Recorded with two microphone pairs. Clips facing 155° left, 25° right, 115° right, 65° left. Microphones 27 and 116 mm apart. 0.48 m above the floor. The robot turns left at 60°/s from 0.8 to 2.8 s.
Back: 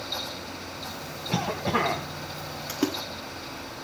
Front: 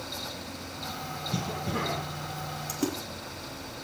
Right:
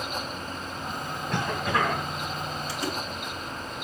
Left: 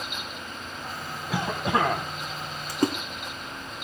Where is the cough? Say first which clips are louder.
Back 7 dB, left 2 dB; 155° left, 3 m; by 2.0 s 110° left, 3 m.